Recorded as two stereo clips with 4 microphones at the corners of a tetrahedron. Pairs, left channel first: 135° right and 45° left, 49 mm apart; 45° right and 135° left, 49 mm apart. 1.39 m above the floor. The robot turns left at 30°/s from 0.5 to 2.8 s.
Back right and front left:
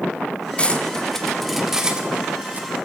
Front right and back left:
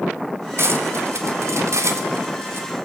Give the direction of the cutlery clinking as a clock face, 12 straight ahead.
7 o'clock.